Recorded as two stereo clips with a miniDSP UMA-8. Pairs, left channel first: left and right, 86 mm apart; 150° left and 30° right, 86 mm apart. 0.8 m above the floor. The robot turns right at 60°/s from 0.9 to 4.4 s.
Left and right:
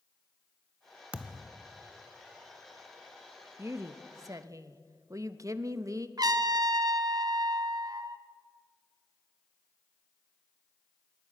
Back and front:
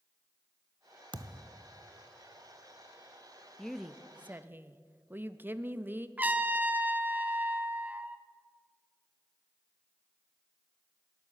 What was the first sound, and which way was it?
A thud, 15° right.